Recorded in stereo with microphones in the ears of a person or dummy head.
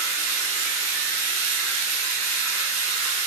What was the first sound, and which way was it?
Running water, 10° right (ahead or behind).